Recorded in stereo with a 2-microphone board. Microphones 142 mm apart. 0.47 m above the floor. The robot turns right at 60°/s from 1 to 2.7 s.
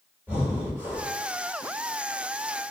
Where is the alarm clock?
No alarm clock in this recording.